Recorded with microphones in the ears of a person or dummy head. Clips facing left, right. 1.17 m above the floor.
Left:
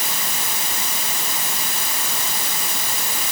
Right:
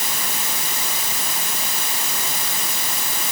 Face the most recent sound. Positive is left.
No sound to turn to.